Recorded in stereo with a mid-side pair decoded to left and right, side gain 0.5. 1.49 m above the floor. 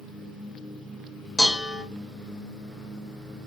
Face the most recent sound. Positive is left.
turn(degrees=0)